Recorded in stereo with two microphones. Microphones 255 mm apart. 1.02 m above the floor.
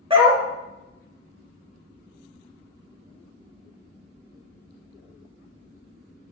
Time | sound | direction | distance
0.1 | a dog barking | 20° right (ahead or behind) | 0.9 m